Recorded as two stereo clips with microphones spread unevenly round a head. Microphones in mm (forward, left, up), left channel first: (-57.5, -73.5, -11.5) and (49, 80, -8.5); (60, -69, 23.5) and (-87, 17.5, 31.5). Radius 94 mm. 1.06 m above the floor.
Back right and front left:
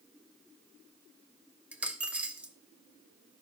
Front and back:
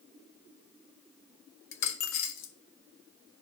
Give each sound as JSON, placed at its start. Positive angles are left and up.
{"t": 1.7, "sound": "a dropped coin", "azimuth_deg": -30, "distance_m": 1.0}